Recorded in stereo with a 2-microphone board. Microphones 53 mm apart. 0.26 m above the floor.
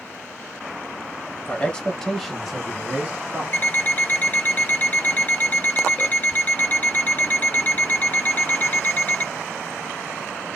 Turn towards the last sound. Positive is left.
turn(degrees=30)  # may be behind; listen again after turning